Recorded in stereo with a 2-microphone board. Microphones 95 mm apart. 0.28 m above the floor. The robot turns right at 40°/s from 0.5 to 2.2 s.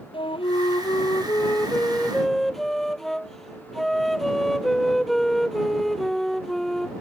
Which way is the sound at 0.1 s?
110° left.